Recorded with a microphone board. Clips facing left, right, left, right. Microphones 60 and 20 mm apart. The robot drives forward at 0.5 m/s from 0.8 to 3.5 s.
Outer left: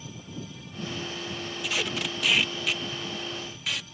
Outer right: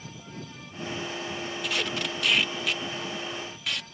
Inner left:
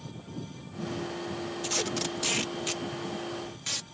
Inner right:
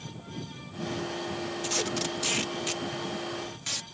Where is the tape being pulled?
Centre (ahead or behind).